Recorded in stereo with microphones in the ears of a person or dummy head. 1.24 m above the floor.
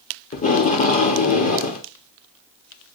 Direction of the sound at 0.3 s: 40° left (ahead or behind).